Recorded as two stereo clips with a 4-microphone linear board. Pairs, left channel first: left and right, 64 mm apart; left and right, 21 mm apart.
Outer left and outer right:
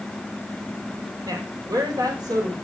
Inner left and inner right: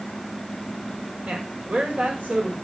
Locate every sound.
1.2 s a woman speaking: 70° right (ahead or behind), 5.5 m; by 2.5 s 75° right (ahead or behind), 6 m